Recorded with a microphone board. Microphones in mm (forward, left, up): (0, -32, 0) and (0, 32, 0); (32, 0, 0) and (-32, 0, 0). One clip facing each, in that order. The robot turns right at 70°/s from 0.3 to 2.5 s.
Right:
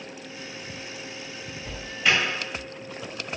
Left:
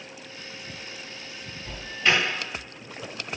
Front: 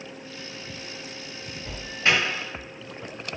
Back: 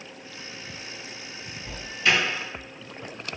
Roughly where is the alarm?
Ahead right.